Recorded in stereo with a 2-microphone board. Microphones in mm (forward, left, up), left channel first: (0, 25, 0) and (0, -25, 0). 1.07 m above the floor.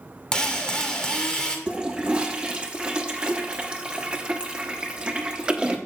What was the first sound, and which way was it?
A drill, 15° left (ahead or behind).